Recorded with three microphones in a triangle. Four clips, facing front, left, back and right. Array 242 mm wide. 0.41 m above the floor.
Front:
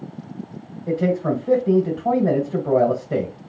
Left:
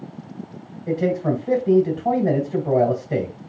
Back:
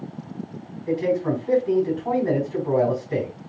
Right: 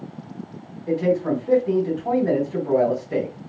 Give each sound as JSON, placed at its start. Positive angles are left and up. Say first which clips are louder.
{"t": 0.9, "sound": "a man speaking", "louder": "right 1 dB, front 1 dB", "azimuth_deg": 40, "distance_m": 2.5}